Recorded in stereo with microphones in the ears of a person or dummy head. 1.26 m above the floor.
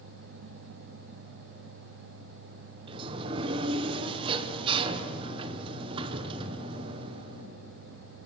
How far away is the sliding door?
About 0.7 m.